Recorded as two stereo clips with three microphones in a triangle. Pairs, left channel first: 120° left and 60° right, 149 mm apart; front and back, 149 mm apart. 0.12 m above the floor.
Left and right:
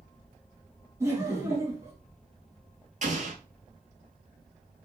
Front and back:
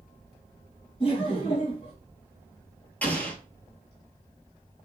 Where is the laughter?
Straight ahead, 1.7 m.